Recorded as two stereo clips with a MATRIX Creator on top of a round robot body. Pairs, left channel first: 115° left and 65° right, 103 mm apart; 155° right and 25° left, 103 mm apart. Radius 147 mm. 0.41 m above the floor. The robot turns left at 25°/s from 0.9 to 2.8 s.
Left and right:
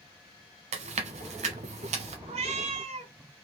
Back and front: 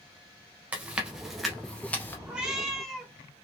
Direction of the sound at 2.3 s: 55° right.